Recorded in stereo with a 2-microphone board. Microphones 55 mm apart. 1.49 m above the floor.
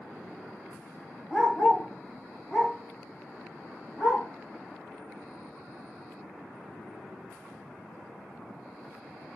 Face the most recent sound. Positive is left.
turn(degrees=30)  # may be behind; listen again after turning